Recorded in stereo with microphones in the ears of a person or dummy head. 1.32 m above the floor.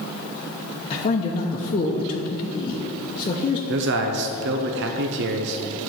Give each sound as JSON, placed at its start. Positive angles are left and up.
{"t": 0.9, "sound": "a man speaking", "side_deg": 30, "distance_m": 0.8}
{"t": 3.7, "sound": "a man speaking", "side_deg": -50, "distance_m": 0.6}